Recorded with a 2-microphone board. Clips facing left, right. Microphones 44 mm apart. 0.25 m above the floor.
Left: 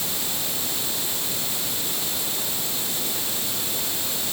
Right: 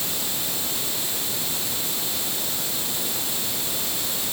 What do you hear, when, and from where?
Only background noise.